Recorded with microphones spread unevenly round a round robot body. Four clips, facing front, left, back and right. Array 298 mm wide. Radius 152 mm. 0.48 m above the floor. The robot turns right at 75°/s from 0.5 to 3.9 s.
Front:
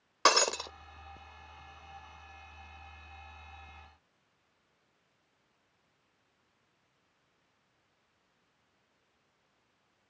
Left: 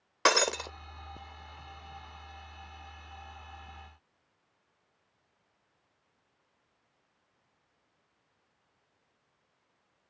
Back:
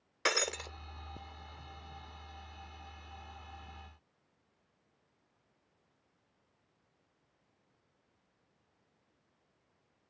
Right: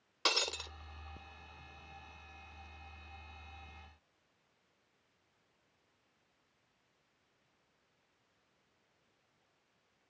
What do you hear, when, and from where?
0.2 s breaking glass: 55° left; by 0.7 s 75° left